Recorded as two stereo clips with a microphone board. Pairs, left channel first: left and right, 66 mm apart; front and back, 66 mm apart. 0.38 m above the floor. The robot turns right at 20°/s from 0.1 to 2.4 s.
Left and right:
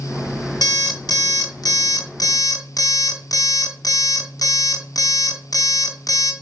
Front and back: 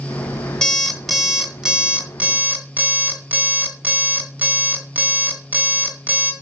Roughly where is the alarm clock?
Left.